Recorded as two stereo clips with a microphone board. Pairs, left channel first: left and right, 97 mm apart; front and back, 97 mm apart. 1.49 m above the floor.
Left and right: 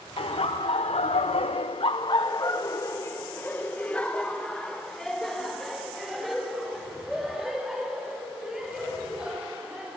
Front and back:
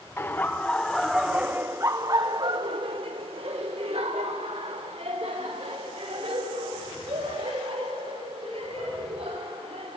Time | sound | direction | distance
0.2 | laughter | 65° left | 1.1 m